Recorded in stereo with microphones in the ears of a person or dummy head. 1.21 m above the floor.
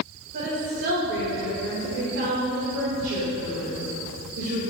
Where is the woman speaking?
60° right (ahead or behind), 1.7 m.